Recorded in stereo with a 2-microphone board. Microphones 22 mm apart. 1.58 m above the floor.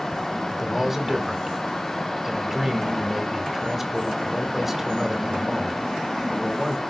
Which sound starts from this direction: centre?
A man speaking, at 0.5 s.